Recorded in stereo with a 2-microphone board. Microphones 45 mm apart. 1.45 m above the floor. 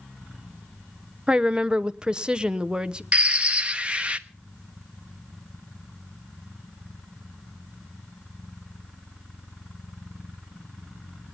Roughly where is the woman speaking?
Centre.